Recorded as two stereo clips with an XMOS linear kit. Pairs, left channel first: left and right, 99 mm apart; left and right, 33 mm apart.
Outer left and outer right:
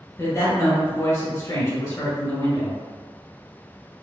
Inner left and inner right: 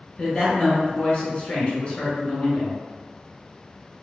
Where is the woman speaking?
30° left (ahead or behind), 1.3 m.